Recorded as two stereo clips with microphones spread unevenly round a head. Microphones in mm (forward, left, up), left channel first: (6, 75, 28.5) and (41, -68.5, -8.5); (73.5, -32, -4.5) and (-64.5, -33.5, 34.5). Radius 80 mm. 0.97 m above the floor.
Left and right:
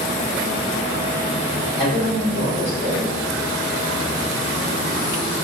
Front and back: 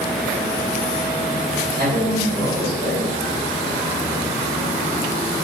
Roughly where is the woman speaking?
Behind left.